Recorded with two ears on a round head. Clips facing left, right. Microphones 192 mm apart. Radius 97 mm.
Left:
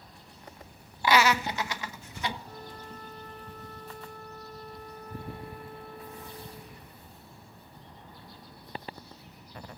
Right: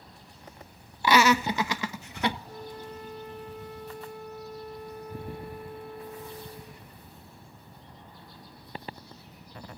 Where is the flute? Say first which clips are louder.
Right 4 dB; 10° right (ahead or behind), 2 m.